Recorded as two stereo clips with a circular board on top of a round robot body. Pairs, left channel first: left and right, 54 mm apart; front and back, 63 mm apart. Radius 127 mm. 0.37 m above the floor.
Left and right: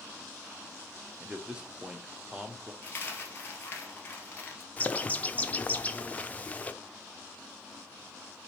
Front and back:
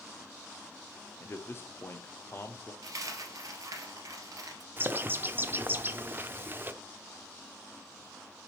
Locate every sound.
1.2 s a man speaking: 25° right, 1.0 m
2.8 s a dropped coin: 145° left, 1.8 m
4.8 s a bird: 140° left, 0.9 m